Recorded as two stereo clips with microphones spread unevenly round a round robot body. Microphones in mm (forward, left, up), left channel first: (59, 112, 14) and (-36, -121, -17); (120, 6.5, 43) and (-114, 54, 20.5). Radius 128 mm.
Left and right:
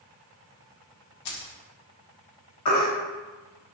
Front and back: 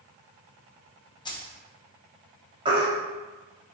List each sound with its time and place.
1.2 s keys jangling: 60° left, 0.9 m
2.6 s a baby crying: 95° left, 1.2 m